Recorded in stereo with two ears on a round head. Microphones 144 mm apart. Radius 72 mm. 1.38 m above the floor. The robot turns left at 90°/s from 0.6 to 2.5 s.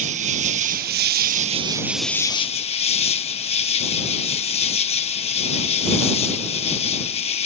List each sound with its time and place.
0.0 s an insect: 55° right; by 7.5 s 135° left